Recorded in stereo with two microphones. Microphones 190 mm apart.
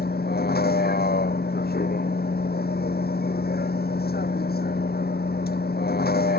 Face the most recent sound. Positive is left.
turn(degrees=55)  # may be behind; listen again after turning